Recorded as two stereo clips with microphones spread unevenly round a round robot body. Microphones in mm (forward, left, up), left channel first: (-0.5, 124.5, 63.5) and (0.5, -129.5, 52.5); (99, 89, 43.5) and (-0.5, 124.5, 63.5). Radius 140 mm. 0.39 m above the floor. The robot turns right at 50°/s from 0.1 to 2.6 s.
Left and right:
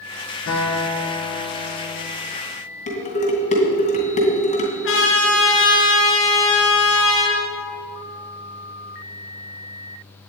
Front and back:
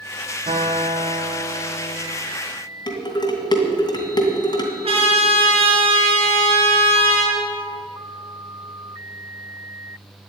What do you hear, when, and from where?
0.5 s a guitar: 135° left, 4.5 m; by 2.2 s 140° right, 4.5 m
2.9 s dishes clattering: 25° left, 2.5 m
4.8 s a trumpet: 135° left, 3.5 m